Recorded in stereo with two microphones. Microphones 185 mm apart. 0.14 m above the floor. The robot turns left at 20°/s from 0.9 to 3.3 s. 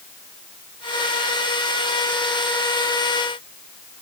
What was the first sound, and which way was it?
Only background noise.